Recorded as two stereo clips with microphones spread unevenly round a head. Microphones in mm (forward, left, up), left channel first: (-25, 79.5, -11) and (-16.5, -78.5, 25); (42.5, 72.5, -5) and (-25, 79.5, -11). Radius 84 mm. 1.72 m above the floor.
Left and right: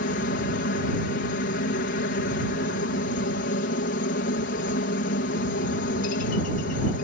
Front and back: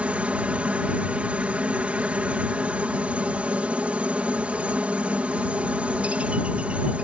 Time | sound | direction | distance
0.0 | a helicopter | 105° left | ?